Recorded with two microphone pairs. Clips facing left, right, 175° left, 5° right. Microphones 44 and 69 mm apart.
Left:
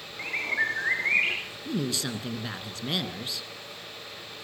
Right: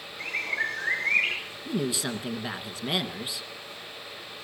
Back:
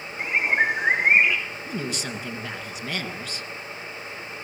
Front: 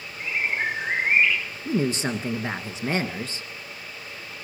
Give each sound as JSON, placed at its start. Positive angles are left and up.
{"t": 0.2, "sound": "a bird", "azimuth_deg": 150, "distance_m": 5.0}
{"t": 1.6, "sound": "a woman speaking", "azimuth_deg": -20, "distance_m": 1.7}